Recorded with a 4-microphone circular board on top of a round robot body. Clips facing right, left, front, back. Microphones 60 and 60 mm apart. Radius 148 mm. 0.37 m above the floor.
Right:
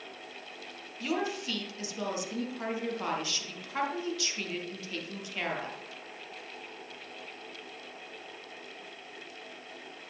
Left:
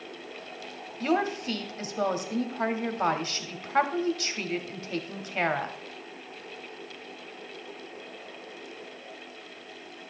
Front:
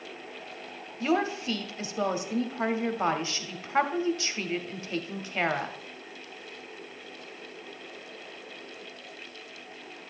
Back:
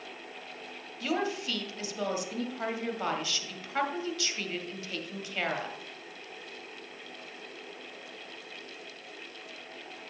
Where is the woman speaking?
55° left, 1.1 m.